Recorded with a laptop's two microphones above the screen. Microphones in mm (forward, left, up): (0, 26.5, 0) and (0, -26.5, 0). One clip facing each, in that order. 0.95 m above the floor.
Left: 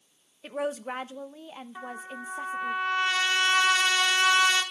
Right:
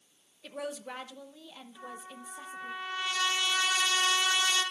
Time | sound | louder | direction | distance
0.4 | a woman speaking | left 7 dB | 35° left (ahead or behind) | 0.6 m
1.8 | a trumpet | left 6 dB | 65° left (ahead or behind) | 1.7 m